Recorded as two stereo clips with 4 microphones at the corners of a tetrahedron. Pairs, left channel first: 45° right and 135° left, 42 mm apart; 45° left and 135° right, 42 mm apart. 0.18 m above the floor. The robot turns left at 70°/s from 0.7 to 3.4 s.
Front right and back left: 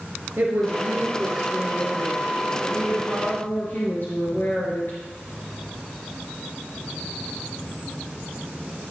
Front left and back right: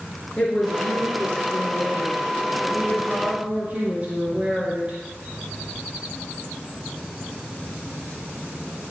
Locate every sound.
0.4 s a woman speaking: 110° left, 3 m; by 5.0 s 80° right, 3 m